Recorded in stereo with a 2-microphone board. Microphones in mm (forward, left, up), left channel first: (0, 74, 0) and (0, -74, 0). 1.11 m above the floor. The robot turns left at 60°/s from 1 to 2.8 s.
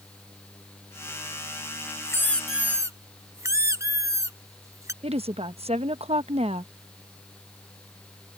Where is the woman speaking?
45° right (ahead or behind).